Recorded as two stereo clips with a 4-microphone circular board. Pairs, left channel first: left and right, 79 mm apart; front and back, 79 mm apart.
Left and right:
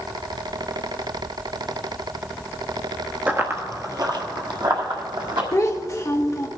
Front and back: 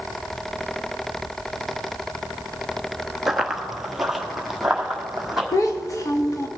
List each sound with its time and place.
3.3 s running footsteps: 100° right, 0.9 m; by 5.4 s 95° right, 2.5 m
5.5 s a child speaking: 40° left, 0.8 m